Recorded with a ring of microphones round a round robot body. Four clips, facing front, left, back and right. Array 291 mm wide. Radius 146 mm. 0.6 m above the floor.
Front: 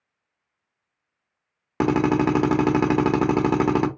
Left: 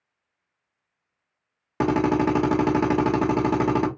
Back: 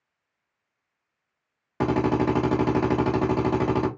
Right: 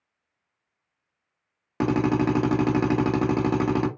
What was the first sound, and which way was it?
A drill, 5° left.